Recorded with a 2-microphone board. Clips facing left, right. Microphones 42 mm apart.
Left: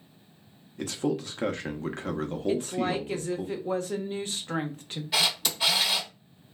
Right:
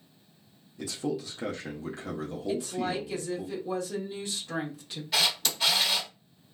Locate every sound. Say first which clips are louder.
0.8 s a man speaking: left 3 dB; 45° left (ahead or behind), 0.6 m
2.5 s a woman speaking: left 3 dB; 35° left (ahead or behind), 0.8 m
5.1 s a camera shutter: left 1 dB; 5° left (ahead or behind), 0.9 m